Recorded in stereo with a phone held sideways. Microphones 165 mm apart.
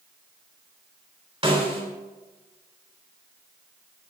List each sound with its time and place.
1.4 s a snare drum: 35° right (ahead or behind), 3.5 m